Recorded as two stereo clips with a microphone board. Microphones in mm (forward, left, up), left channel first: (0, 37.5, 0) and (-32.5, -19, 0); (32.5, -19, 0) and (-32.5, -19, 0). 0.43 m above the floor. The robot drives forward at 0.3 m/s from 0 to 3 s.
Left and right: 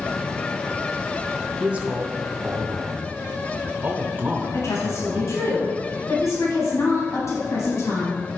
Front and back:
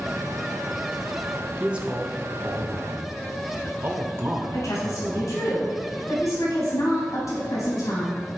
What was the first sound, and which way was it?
A man speaking, 135° right.